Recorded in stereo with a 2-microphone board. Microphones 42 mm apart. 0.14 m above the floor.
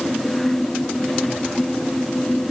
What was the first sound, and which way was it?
Only background noise.